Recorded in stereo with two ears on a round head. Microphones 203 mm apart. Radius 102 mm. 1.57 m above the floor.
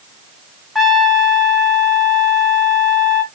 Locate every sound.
0.8 s a trumpet: centre (ahead or behind), 0.9 m